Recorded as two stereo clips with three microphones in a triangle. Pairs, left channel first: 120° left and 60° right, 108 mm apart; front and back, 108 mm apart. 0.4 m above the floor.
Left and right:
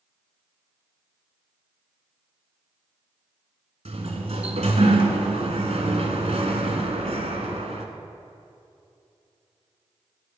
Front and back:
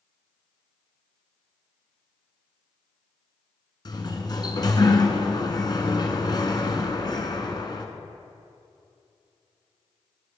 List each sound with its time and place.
3.9 s a sliding door: 50° right, 1.2 m